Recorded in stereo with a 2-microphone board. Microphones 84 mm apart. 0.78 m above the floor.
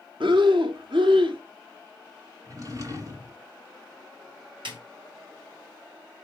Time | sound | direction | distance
0.2 | breathing | 80° right | 1.1 m
2.5 | a drawer | 45° right (ahead or behind) | 2 m
4.7 | a snare drum | 80° right | 4 m